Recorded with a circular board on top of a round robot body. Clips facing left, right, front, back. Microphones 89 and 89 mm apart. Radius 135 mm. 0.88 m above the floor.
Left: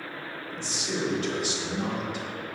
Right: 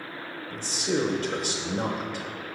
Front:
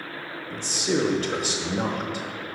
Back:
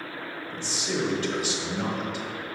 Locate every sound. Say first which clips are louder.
0.5 s a man speaking: right 6 dB, front 6 dB; 45° right, 0.6 m